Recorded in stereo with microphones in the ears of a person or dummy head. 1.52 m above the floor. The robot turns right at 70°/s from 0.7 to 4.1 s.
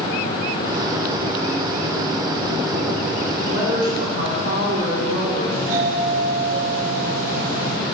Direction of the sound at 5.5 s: 50° right (ahead or behind).